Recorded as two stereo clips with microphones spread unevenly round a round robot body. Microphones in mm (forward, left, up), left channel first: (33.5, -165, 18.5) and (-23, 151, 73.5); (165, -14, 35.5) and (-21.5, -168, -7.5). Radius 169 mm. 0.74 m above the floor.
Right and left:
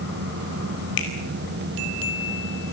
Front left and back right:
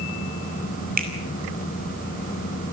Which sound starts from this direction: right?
A finger snap, at 1.0 s.